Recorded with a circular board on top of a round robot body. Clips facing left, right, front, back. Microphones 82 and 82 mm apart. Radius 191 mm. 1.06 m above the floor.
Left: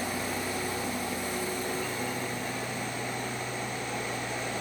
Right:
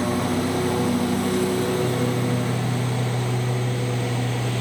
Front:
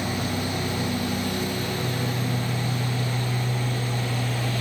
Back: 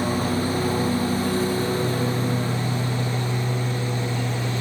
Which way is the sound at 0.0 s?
125° right.